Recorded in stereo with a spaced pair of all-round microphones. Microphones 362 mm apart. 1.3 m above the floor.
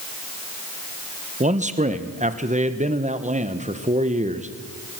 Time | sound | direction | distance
1.4 | a man speaking | 20° right (ahead or behind) | 1.2 m